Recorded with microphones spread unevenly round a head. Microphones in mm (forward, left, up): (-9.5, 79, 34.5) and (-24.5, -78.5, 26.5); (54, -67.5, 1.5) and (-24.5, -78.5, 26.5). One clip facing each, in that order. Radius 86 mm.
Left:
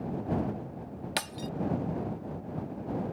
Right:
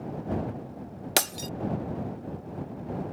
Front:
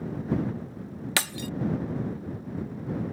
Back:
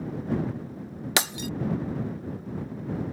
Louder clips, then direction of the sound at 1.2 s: Right 7 dB, back 3 dB; 125° right.